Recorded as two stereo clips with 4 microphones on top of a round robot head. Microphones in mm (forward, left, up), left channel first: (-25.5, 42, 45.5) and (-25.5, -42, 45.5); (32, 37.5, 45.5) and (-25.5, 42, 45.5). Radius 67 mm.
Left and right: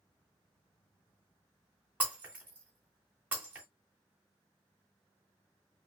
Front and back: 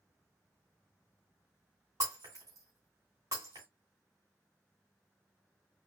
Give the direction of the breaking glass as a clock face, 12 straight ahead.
5 o'clock.